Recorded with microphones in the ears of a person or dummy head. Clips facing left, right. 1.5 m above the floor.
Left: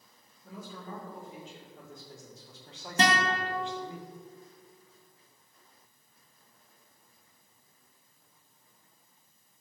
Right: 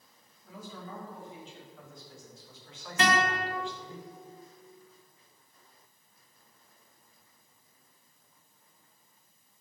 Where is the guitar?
30° left (ahead or behind), 1.6 m.